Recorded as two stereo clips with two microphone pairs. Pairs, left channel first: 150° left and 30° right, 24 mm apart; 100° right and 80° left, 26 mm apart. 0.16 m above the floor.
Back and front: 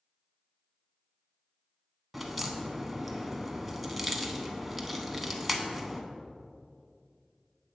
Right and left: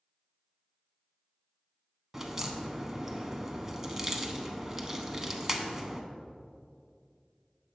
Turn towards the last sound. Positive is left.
turn(degrees=50)